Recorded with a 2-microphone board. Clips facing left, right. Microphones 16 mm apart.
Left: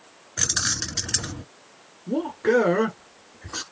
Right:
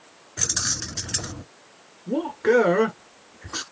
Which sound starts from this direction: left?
Keys jangling, at 0.4 s.